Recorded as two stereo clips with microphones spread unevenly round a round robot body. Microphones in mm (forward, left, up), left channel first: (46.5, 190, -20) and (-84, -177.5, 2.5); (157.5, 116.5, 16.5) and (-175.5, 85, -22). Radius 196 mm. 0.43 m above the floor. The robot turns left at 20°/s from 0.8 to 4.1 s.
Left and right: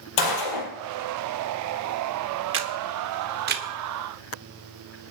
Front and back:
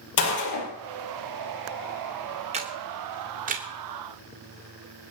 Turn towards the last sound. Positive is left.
turn(degrees=-170)